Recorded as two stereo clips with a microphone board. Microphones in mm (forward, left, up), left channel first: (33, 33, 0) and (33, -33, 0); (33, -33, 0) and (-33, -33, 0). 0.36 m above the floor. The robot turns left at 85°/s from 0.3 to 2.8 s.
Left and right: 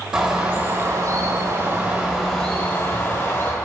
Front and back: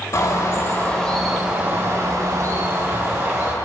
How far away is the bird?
About 1.5 m.